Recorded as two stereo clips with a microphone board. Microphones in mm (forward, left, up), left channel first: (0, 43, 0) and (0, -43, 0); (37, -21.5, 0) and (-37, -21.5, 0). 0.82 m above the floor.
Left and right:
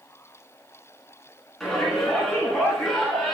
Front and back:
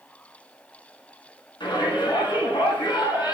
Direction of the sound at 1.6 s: 5° left.